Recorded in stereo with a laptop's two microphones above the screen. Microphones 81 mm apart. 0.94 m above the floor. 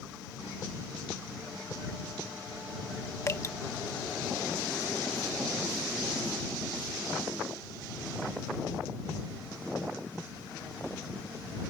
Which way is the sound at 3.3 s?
40° left (ahead or behind).